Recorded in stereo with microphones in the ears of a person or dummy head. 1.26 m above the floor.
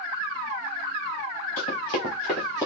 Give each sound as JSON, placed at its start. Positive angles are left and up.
{"t": 1.6, "sound": "running footsteps", "side_deg": 30, "distance_m": 1.5}